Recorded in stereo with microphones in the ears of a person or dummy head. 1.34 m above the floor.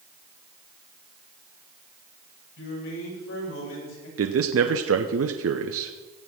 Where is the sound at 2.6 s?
80° left, 7 m; by 4.1 s 90° left, 7.5 m.